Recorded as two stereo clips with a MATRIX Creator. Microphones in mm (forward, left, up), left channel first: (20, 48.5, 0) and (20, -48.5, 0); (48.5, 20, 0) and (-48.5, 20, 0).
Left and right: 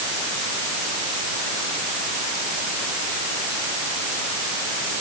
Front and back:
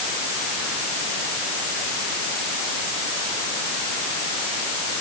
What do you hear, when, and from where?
Only background noise.